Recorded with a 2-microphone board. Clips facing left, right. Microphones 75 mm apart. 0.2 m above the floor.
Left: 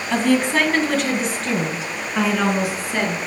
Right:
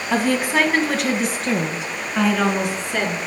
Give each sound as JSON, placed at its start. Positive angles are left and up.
{"t": 0.1, "sound": "a woman speaking", "side_deg": -10, "distance_m": 1.5}